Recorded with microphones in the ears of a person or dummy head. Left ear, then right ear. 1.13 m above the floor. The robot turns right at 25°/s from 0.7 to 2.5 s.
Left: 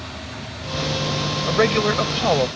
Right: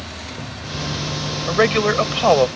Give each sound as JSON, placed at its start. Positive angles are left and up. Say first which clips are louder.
{"t": 1.5, "sound": "a man speaking", "louder": "right 2 dB", "side_deg": -5}